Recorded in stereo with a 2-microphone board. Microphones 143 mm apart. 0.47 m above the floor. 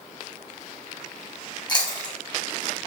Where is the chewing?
30° left (ahead or behind), 1.3 m.